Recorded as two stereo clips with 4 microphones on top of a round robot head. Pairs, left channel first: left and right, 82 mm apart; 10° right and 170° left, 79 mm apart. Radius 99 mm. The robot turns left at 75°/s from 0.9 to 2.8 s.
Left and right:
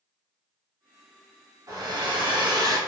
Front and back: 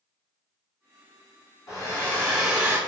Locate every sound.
1.7 s a hair dryer: 50° right, 0.9 m; by 2.8 s 130° right, 0.9 m